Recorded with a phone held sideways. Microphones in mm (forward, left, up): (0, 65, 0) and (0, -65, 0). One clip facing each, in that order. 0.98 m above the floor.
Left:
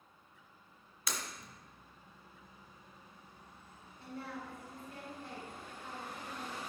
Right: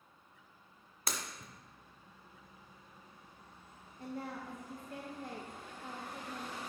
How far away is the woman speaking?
About 0.8 m.